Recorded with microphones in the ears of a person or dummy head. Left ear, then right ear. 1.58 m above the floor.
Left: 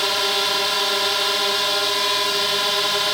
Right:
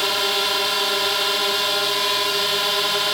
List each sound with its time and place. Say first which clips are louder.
0.0 s a drone: even; 5° left (ahead or behind)